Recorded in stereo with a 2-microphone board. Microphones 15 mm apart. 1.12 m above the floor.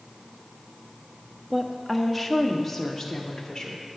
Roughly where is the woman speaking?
Right.